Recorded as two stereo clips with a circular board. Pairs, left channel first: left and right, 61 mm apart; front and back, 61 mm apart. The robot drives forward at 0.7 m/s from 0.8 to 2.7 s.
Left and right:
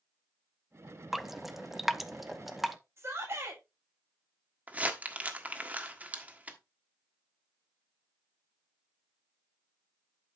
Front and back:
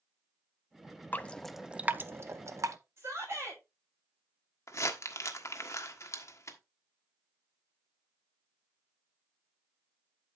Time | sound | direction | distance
1.1 | dripping | 5° right | 0.6 m
3.0 | a shout | 125° right | 6.5 m
4.7 | crumpling | 30° right | 1.4 m